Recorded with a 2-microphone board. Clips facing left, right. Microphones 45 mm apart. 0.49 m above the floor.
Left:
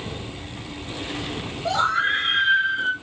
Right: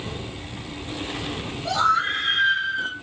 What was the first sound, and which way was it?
A scream, 20° left (ahead or behind).